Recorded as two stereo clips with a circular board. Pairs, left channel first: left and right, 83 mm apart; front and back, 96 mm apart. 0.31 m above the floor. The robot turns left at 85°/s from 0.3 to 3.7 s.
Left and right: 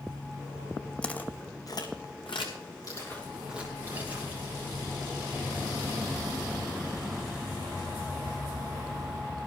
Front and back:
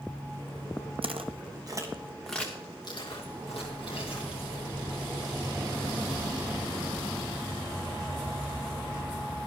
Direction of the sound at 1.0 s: 165° left.